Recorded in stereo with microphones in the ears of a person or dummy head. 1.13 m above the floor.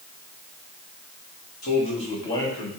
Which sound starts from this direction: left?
A man speaking, at 1.6 s.